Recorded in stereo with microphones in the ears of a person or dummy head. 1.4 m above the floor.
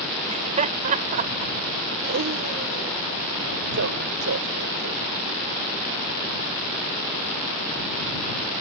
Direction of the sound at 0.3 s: 40° right (ahead or behind).